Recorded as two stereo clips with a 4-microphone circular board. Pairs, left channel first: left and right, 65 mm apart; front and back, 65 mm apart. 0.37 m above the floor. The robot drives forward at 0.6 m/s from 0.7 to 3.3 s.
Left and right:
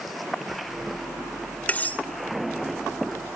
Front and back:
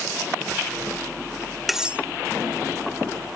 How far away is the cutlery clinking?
About 0.5 m.